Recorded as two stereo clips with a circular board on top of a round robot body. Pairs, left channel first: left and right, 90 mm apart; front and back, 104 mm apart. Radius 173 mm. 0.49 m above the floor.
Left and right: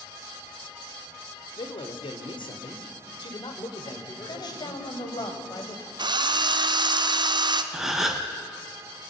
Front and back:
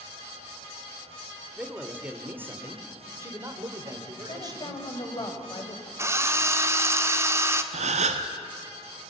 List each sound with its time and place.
1.6 s a man speaking: 100° left, 2.5 m; by 5.3 s 135° left, 3.5 m
4.3 s a woman speaking: 50° left, 4 m
6.0 s a drill: 120° right, 1.6 m
7.7 s a gasp: 175° right, 1.1 m